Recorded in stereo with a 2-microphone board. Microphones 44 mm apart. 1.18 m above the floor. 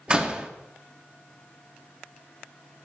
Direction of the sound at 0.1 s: 25° right (ahead or behind).